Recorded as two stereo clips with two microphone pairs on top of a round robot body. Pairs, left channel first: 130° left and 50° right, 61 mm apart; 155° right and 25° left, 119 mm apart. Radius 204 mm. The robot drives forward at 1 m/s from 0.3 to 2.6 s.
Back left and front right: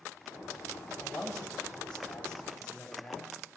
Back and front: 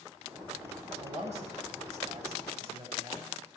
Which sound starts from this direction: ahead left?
A man speaking, at 1.0 s.